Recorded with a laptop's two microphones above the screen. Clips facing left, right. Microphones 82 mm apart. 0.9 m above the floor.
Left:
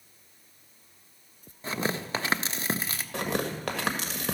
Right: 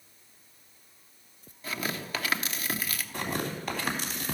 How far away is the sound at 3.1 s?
About 1.7 m.